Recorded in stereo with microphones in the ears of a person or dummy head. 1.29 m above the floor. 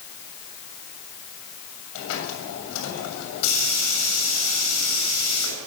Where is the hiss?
85° left, 7 m.